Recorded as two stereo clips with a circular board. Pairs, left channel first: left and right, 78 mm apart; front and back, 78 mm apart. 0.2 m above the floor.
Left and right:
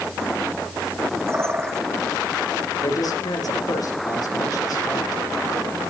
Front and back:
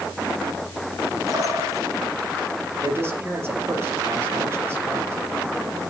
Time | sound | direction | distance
1.3 | a bird | 140° right | 1.2 m
2.8 | a man speaking | 120° left | 4.5 m